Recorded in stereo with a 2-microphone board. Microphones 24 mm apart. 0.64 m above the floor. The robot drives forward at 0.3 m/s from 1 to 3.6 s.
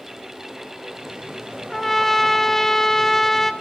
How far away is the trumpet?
About 0.8 m.